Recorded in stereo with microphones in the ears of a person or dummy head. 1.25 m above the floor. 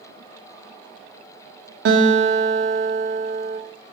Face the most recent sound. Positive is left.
turn(degrees=-60)  # may be behind; listen again after turning